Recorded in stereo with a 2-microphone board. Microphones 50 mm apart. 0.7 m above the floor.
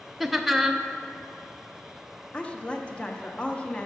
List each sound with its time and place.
0.2 s laughter: 5° right (ahead or behind), 0.6 m
2.3 s a woman speaking: 25° left (ahead or behind), 0.8 m